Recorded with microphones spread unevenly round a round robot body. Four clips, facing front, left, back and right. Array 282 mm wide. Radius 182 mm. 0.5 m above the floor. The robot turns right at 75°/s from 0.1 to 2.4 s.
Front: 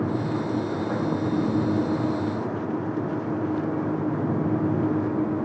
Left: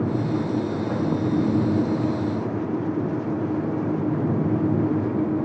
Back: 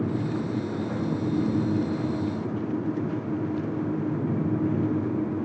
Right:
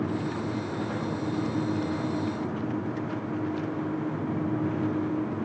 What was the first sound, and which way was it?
Only background noise.